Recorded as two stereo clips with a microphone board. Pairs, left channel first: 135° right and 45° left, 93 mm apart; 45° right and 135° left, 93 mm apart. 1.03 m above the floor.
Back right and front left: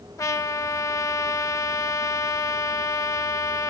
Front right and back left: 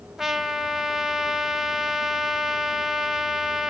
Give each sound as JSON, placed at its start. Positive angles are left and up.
{"t": 0.2, "sound": "a trumpet", "azimuth_deg": -140, "distance_m": 0.9}